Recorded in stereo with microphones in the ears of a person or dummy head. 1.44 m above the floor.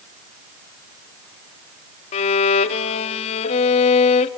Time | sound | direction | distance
2.1 | a violin | 35° left (ahead or behind) | 0.5 m